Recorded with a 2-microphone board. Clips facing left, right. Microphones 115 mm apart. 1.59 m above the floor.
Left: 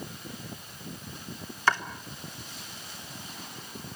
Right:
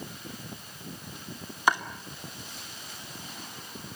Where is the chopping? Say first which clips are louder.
Right 1 dB; 15° right (ahead or behind), 3 m.